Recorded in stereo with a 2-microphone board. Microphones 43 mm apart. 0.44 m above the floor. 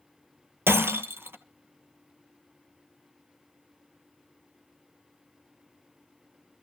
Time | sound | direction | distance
0.7 | breaking glass | 75° right (ahead or behind) | 1.2 m